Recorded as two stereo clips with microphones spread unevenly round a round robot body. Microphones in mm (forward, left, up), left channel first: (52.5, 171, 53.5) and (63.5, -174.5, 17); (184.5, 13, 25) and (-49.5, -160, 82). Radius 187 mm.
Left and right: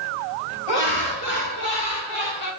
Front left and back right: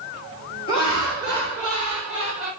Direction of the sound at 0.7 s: 105° left.